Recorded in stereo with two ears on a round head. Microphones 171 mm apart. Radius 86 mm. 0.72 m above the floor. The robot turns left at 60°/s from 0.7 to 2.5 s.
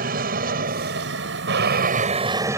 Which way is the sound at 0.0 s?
55° right.